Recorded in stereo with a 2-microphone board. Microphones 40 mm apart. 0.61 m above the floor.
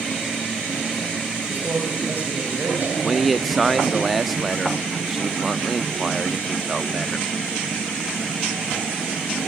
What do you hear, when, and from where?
1.5 s a man speaking: 55° right (ahead or behind), 4 m
3.0 s a man speaking: centre (ahead or behind), 0.6 m